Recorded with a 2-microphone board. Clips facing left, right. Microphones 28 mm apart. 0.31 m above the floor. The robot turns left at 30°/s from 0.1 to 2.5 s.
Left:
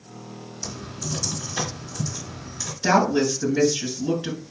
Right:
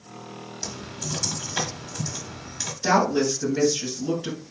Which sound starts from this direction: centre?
A woman speaking, at 2.8 s.